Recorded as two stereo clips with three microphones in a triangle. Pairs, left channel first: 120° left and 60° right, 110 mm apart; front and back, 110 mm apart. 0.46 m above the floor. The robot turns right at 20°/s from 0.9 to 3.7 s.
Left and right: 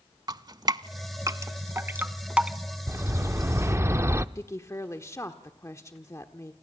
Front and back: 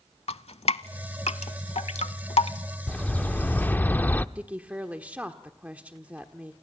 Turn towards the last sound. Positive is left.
turn(degrees=120)